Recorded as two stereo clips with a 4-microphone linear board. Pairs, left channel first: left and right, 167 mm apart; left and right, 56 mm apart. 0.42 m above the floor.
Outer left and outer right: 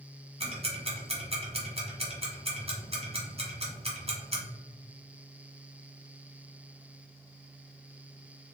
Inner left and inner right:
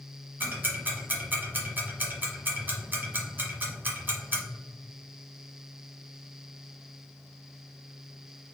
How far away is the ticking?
About 1.0 m.